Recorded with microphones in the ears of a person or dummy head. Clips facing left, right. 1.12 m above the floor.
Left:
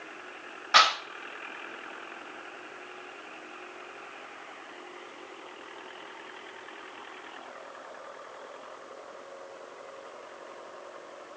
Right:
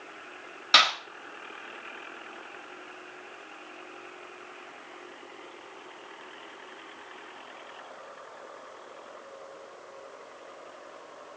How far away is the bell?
I don't hear a bell.